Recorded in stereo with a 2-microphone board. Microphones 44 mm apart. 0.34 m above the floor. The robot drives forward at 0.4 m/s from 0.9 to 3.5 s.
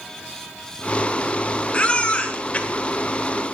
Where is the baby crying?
25° left (ahead or behind), 1.0 m; by 3.6 s 30° left (ahead or behind), 0.9 m.